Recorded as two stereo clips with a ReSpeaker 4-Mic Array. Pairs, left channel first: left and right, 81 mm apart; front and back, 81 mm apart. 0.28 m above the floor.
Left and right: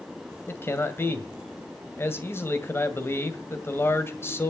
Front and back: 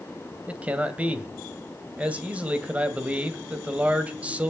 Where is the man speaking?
120° left, 1.7 m.